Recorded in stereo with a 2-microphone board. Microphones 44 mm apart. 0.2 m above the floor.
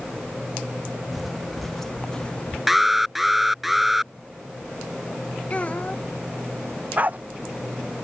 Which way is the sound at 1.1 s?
5° right (ahead or behind).